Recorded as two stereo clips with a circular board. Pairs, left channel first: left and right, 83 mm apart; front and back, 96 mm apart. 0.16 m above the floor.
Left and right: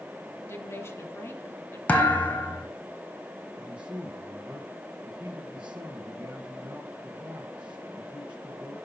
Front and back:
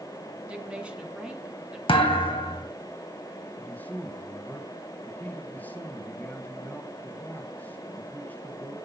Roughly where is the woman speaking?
Left.